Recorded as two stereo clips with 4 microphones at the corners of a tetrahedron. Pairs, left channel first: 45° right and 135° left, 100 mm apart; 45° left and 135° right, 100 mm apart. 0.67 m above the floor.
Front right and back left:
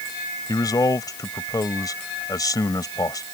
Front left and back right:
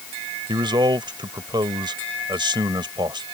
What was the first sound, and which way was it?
A man speaking, 95° right.